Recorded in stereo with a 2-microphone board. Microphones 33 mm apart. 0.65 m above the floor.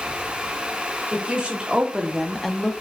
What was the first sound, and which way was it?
A woman speaking, 40° right (ahead or behind).